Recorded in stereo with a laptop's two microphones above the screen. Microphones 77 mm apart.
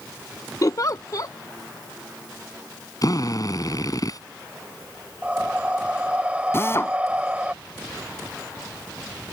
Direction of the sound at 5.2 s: 15° right (ahead or behind).